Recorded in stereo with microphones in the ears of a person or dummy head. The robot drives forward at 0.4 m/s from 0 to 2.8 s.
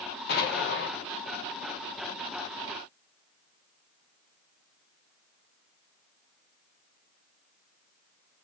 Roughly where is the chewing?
No chewing in this recording.